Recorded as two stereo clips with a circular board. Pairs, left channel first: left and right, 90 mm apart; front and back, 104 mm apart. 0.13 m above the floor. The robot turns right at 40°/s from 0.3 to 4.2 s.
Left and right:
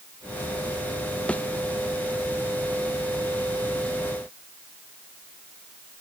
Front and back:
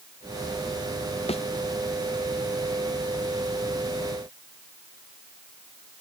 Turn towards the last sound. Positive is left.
turn(degrees=130)